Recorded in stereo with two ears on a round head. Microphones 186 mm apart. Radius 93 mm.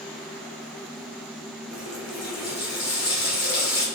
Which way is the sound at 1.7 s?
70° left (ahead or behind).